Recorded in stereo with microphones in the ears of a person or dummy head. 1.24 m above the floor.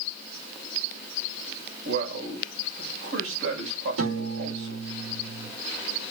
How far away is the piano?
About 5 m.